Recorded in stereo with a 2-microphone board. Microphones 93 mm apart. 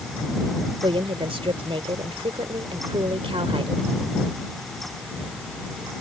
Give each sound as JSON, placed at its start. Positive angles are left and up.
{"t": 0.8, "sound": "a woman speaking", "side_deg": -70}